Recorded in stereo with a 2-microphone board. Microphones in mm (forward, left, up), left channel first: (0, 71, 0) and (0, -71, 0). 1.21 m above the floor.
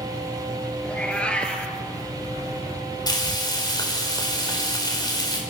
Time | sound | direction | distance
0.8 | a cat meowing | 5° left (ahead or behind) | 3.5 m
3.1 | frying | 30° left (ahead or behind) | 4.5 m